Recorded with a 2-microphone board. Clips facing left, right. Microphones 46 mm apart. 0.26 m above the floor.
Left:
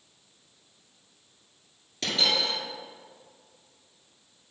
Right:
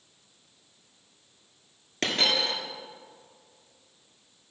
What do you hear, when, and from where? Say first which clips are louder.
2.0 s a dropped coin: right 1 dB; 55° right (ahead or behind), 1.7 m